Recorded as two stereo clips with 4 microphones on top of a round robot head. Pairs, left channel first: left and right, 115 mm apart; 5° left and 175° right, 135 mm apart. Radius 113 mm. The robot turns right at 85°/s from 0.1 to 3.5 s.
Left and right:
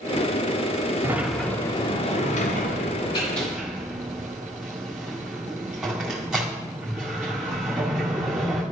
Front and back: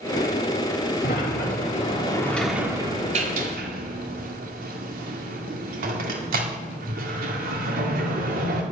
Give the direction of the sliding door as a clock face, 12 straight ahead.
1 o'clock.